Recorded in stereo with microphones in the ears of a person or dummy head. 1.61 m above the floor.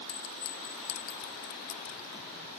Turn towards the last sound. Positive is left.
turn(degrees=50)  # may be behind; listen again after turning